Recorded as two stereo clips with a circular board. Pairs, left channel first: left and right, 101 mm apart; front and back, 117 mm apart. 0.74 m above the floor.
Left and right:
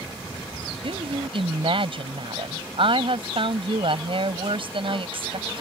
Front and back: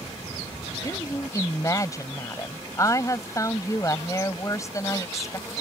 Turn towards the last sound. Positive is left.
turn(degrees=-65)